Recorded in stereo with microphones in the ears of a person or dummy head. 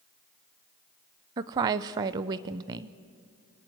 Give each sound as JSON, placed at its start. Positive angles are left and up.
{"t": 1.4, "sound": "a woman speaking", "side_deg": -20, "distance_m": 0.7}